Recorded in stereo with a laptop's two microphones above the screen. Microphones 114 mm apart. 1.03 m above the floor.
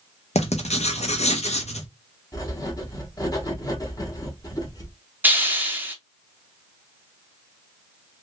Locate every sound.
0.3 s writing: 75° left (ahead or behind), 0.7 m
2.3 s writing: 35° left (ahead or behind), 1.1 m
5.2 s a hiss: 15° right (ahead or behind), 0.7 m